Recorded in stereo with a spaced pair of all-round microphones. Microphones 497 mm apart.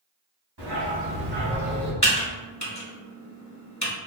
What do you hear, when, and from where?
0.6 s a dog barking: 55° right (ahead or behind), 1.9 m; by 1.9 s 10° left (ahead or behind), 1.6 m
2.0 s typing on a keyboard: 35° left (ahead or behind), 1.2 m